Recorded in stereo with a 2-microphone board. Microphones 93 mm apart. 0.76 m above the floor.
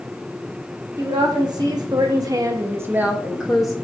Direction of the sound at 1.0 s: 45° right (ahead or behind).